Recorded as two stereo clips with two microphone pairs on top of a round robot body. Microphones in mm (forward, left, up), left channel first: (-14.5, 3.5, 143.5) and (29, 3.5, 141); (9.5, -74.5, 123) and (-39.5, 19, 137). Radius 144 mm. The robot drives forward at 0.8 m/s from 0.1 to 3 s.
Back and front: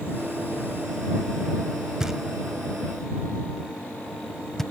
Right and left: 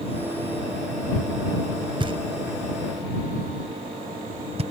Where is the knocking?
75° left; by 4.6 s 100° left.